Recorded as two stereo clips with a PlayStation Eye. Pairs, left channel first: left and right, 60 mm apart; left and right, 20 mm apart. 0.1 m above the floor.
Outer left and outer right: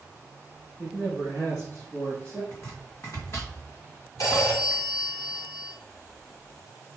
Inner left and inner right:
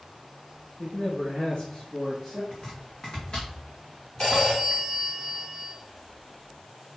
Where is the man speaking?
60° left (ahead or behind), 4 m; by 2.4 s 30° left (ahead or behind), 3 m.